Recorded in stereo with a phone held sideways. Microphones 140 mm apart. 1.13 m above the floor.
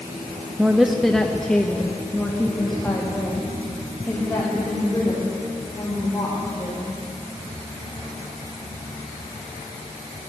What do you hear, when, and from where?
0.6 s a woman speaking: 5° right (ahead or behind), 0.9 m; by 7.0 s 15° left (ahead or behind), 5.5 m